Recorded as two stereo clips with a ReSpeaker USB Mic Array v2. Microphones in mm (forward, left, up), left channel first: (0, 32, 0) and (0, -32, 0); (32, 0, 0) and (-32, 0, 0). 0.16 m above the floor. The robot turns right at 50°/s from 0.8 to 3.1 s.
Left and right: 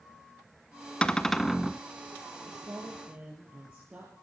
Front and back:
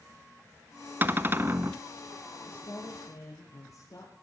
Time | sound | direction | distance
1.0 | a cupboard door | 155° left | 0.5 m
2.5 | a woman speaking | 50° right | 3.5 m